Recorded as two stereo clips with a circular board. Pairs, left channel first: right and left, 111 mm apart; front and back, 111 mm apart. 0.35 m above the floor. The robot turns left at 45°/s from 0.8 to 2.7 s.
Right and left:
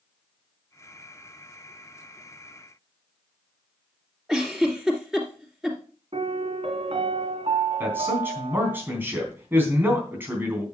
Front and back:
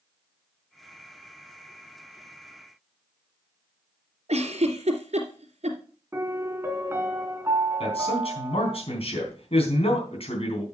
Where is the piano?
115° left, 1.7 m.